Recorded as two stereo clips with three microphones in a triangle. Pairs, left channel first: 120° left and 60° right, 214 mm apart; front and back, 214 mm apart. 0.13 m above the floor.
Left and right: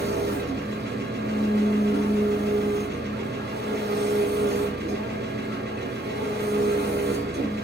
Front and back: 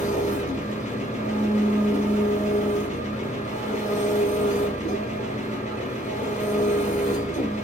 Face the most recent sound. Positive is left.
turn(degrees=-45)